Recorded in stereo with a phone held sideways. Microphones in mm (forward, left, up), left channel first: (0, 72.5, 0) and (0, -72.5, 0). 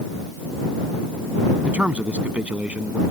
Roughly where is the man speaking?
Centre.